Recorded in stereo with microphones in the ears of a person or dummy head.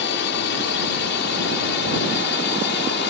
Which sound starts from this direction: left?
A drone, at 0.0 s.